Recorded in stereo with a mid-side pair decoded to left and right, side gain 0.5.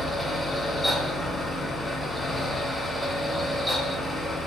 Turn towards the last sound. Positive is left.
turn(degrees=10)